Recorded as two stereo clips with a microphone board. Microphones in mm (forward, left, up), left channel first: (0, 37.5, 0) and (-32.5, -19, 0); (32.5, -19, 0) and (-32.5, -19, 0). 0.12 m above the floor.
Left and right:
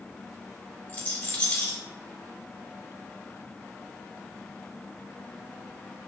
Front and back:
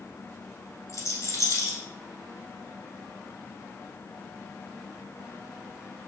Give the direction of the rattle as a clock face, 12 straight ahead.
12 o'clock.